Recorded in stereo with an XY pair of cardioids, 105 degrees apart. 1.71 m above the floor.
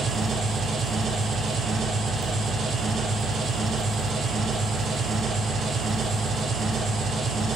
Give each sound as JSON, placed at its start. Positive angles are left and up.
{"t": 0.0, "sound": "an engine running", "azimuth_deg": -55, "distance_m": 2.5}